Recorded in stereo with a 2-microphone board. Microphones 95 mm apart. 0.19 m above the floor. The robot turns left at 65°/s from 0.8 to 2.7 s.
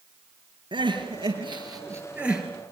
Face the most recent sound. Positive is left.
turn(degrees=170)